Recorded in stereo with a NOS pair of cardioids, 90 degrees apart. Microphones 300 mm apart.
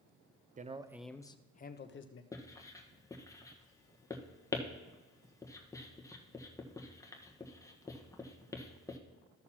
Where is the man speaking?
25° right, 0.7 m; by 2.2 s 45° left, 1.1 m.